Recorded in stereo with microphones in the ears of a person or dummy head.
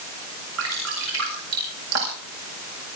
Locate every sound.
0.6 s dripping: 75° right (ahead or behind), 8 m